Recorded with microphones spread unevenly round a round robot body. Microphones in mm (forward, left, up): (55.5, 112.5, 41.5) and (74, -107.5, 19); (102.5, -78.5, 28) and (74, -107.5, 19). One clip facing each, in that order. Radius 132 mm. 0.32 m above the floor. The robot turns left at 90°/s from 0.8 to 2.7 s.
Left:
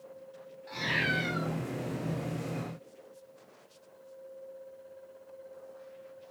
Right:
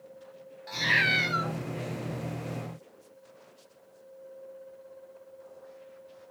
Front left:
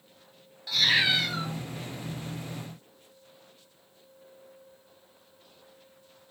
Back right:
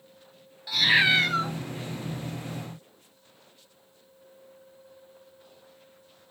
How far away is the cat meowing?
About 1.3 m.